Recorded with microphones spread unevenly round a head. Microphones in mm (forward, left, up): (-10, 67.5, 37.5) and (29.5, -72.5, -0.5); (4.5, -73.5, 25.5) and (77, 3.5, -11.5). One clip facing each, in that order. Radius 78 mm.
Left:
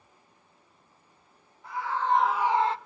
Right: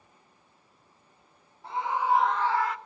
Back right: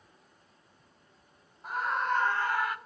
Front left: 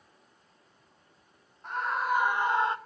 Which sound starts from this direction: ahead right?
A scream, at 1.6 s.